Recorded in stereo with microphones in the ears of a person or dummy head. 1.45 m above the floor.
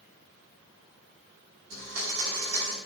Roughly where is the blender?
Right.